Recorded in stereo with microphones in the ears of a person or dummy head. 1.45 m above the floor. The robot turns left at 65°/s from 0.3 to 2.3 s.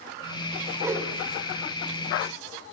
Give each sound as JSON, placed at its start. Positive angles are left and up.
{"t": 0.8, "sound": "a whoosh", "side_deg": -20, "distance_m": 3.5}